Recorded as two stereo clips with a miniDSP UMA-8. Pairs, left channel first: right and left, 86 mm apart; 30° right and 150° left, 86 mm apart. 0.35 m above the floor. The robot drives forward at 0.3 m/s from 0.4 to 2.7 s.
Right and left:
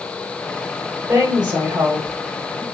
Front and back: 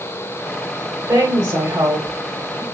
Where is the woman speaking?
130° left, 1.3 m; by 2.6 s 145° left, 1.5 m.